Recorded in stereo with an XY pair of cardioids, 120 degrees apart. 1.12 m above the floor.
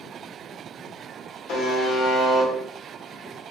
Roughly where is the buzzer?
Ahead left.